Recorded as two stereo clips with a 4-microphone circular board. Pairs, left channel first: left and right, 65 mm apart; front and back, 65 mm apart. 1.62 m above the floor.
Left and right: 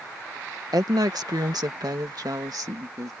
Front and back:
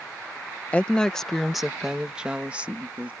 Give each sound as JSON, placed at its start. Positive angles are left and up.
{"t": 0.7, "sound": "a woman speaking", "azimuth_deg": -70}